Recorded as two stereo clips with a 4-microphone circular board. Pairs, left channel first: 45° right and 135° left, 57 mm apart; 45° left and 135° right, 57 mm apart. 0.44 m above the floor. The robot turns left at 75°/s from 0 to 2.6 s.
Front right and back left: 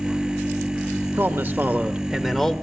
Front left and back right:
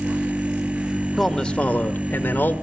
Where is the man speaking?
135° left, 1.5 m; by 2.5 s 30° left, 1.5 m.